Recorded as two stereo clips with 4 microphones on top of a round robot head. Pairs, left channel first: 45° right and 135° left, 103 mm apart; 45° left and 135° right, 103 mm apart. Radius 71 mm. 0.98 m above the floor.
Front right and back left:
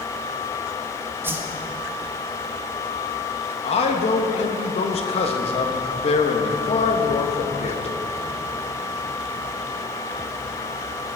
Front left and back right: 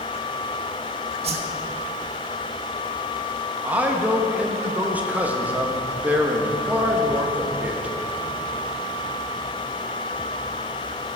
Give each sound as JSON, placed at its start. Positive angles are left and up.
{"t": 1.2, "sound": "a whoosh", "azimuth_deg": -155, "distance_m": 1.1}
{"t": 3.6, "sound": "a man speaking", "azimuth_deg": -60, "distance_m": 1.4}